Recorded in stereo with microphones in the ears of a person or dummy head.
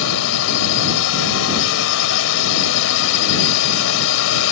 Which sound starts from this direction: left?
A drone, at 0.0 s.